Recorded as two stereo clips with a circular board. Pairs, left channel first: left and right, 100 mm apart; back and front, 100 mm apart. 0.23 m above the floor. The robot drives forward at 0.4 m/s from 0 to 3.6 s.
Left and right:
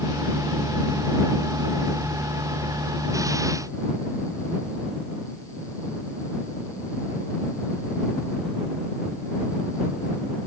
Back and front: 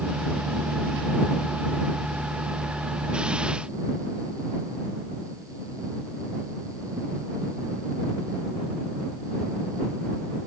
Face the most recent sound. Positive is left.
No sound to turn to.